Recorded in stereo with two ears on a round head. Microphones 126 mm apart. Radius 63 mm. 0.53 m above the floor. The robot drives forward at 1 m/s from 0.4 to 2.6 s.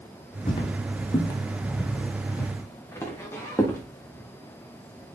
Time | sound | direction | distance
0.5 | footsteps | 40° left (ahead or behind) | 1.6 m